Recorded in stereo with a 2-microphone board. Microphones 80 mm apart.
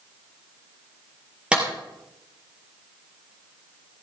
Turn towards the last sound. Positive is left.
turn(degrees=-10)  # may be behind; listen again after turning